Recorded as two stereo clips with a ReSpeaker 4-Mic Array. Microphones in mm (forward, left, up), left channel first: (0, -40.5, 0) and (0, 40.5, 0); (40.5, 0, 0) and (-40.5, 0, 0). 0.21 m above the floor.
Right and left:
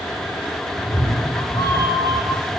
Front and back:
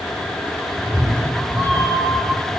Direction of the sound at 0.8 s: 115° right.